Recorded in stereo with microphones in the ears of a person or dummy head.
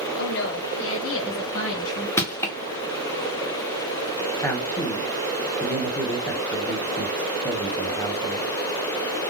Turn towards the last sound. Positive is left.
turn(degrees=15)  # may be behind; listen again after turning